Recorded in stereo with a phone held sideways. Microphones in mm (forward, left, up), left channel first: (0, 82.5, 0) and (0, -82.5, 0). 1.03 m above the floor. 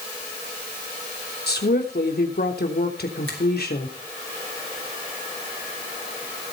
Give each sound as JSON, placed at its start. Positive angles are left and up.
{"t": 1.5, "sound": "a woman speaking", "side_deg": 75, "distance_m": 3.0}
{"t": 3.3, "sound": "a finger snap", "side_deg": -80, "distance_m": 4.0}